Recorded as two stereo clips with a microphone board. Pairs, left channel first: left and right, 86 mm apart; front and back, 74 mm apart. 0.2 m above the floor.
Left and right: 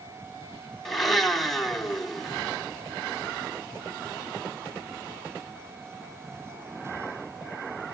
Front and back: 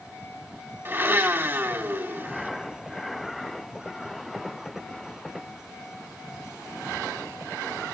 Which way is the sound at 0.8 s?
175° left.